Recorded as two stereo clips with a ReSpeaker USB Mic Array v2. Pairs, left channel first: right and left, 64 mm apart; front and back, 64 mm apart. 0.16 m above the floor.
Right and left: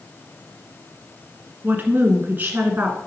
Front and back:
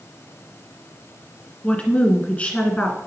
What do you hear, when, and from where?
1.6 s a woman speaking: 55° left, 1.6 m